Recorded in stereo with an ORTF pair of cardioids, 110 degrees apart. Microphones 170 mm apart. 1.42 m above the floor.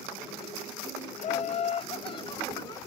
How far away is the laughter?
About 2 m.